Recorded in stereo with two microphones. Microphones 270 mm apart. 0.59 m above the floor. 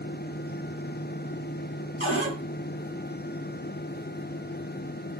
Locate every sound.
2.0 s a cupboard door: 50° left (ahead or behind), 1.5 m